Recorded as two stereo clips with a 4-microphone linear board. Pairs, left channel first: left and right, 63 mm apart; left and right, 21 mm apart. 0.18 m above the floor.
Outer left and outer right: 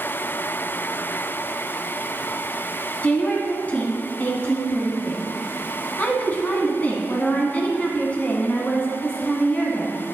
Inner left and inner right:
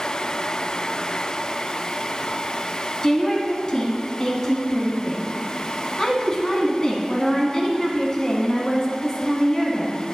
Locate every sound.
3.0 s a woman speaking: 25° left (ahead or behind), 1.3 m